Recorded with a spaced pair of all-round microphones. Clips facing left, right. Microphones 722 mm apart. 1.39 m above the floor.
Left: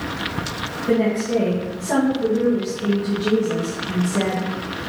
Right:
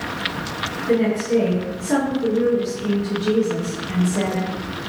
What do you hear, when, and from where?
0.9 s a woman speaking: 65° left (ahead or behind), 1.5 m